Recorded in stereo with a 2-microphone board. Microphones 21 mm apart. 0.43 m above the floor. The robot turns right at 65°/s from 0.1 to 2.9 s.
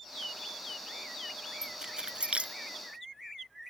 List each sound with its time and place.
1.6 s keys jangling: 20° right (ahead or behind); by 2.6 s 80° right